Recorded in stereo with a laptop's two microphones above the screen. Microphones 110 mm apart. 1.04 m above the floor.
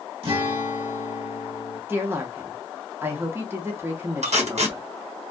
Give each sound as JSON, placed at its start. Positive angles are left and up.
{"t": 0.2, "sound": "a guitar", "side_deg": -55, "distance_m": 1.0}
{"t": 1.9, "sound": "a woman speaking", "side_deg": -20, "distance_m": 0.7}
{"t": 4.2, "sound": "tape being pulled", "side_deg": -75, "distance_m": 1.1}